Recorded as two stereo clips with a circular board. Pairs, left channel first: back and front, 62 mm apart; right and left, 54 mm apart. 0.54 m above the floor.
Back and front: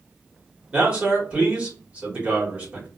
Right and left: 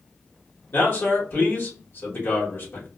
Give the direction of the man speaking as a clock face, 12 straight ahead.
2 o'clock.